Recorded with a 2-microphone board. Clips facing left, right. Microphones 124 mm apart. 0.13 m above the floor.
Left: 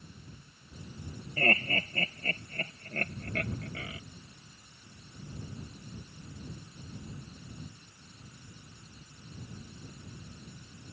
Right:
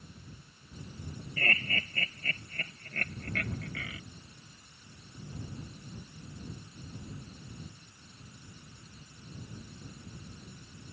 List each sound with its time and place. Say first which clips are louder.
1.4 s laughter: left 6 dB; 35° left (ahead or behind); by 4.0 s 30° left (ahead or behind)